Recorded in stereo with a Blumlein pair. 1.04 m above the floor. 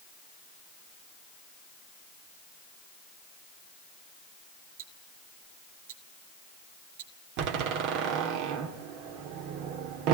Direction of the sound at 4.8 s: 50° right.